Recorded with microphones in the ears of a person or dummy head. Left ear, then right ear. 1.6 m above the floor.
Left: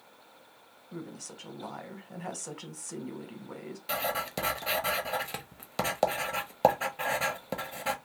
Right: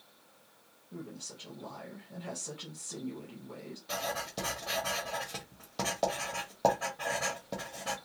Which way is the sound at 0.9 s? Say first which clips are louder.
Left 2 dB; 45° left (ahead or behind).